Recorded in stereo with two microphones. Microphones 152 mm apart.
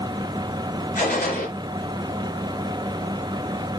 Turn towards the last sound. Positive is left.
turn(degrees=75)  # may be behind; listen again after turning